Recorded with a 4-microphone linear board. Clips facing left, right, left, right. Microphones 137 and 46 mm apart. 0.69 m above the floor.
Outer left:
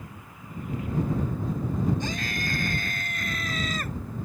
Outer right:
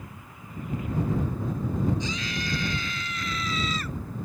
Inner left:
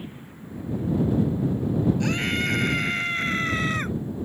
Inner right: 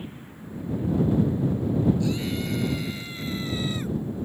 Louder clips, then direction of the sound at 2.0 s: Outer left 1 dB, inner left 3 dB; 50° left (ahead or behind).